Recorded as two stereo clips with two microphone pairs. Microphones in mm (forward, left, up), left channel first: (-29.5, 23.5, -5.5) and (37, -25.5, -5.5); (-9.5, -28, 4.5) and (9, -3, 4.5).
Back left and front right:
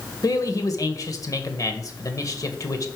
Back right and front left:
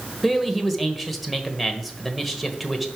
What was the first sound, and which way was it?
A man speaking, 145° left.